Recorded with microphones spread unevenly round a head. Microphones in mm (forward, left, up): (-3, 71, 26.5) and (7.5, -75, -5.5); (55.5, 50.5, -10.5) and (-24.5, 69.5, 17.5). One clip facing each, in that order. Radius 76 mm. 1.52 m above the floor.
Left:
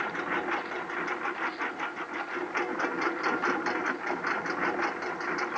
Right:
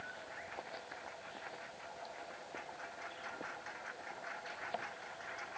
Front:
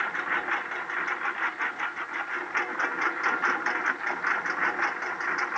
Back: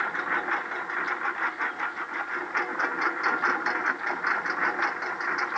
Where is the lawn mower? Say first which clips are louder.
Left 17 dB, back 1 dB; 90° left; by 5.6 s 85° left.